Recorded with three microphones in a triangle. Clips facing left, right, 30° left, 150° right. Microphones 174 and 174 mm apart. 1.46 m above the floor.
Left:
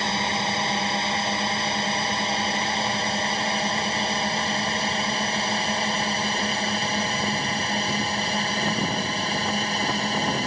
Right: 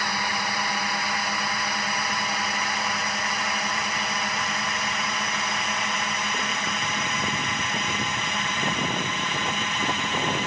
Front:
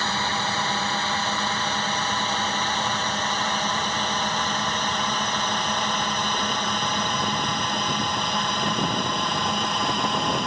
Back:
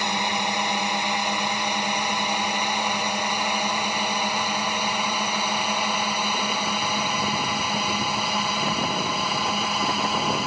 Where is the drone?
140° left; by 10.5 s 125° left.